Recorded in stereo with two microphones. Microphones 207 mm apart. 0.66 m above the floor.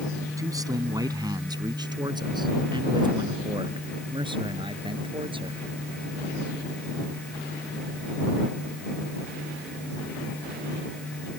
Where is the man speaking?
15° right (ahead or behind); by 5.6 s 25° right (ahead or behind).